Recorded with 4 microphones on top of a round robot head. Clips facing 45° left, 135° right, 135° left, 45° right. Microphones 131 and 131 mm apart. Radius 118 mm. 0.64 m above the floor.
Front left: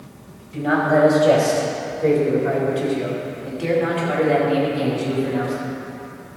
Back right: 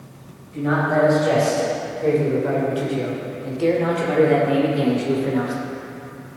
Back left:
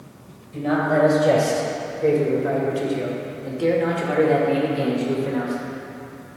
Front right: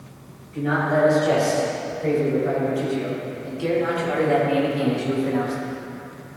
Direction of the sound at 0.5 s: 120° left.